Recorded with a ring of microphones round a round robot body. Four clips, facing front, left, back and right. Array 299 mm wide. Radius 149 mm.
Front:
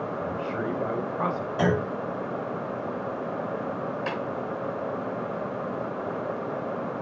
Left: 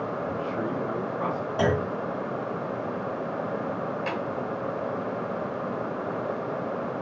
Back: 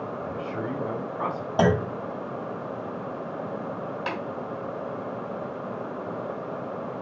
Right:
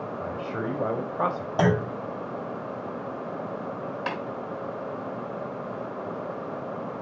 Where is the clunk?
145° right, 1.8 m.